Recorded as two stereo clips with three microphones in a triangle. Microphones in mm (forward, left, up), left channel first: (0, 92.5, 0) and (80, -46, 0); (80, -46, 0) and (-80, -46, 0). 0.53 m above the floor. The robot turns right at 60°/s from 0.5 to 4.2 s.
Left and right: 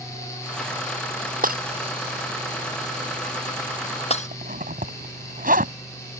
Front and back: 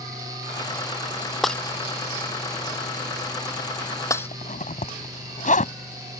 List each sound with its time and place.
1.4 s breaking glass: 90° right; by 4.3 s 75° left
4.3 s a zipper: 35° right